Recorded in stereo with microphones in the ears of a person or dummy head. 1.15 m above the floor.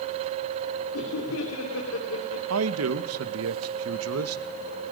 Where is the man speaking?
85° right, 1.1 m.